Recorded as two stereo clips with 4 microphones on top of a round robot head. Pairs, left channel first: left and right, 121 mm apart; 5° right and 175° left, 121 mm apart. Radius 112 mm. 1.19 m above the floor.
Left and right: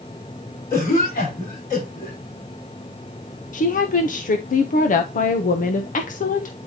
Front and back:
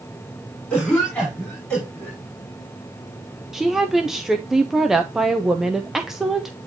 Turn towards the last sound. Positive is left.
turn(degrees=90)